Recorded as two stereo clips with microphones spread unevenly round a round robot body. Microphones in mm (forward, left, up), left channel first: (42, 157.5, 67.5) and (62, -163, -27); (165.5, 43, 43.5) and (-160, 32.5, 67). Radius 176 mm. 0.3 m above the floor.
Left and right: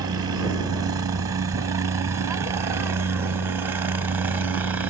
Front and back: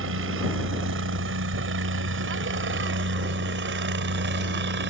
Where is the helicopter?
140° right; by 4.9 s 145° right.